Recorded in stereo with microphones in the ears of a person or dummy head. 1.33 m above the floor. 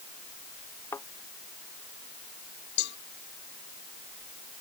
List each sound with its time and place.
0.9 s a thud: 15° left (ahead or behind)
2.8 s a cowbell: 60° left (ahead or behind)